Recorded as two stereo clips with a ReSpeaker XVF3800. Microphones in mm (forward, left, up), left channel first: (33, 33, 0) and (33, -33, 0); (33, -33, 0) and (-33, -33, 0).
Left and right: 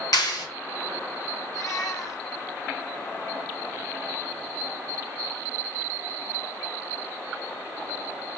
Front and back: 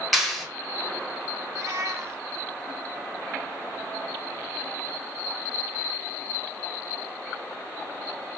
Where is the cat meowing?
130° left, 1.0 m.